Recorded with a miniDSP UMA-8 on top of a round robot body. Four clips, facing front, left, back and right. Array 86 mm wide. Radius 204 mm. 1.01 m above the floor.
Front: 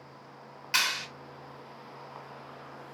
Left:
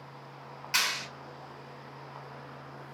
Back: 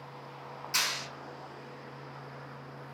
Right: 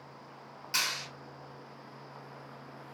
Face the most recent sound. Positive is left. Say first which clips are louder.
# left 3 dB, front 4 dB
turn(degrees=35)